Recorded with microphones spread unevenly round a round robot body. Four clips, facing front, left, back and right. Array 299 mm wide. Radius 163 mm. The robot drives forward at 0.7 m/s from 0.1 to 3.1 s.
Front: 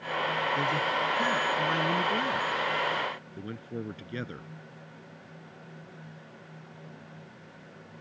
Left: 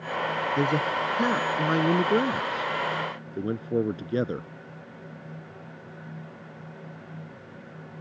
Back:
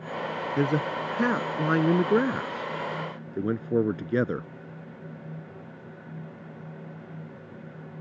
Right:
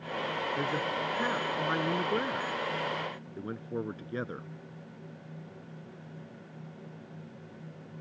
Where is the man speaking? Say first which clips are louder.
Left 9 dB, back 2 dB; 140° left; by 4.5 s 145° left.